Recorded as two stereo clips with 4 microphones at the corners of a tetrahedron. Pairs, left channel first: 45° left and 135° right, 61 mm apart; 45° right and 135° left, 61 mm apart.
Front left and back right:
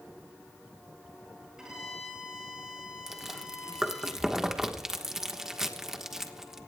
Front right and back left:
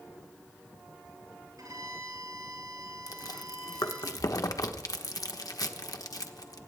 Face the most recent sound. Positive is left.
turn(degrees=-55)